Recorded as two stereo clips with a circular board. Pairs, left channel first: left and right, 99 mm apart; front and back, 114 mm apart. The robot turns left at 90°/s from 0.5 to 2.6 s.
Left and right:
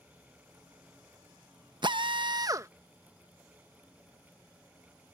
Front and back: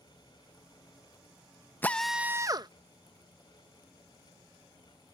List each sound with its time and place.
1.8 s a drill: 70° right; by 2.7 s 140° right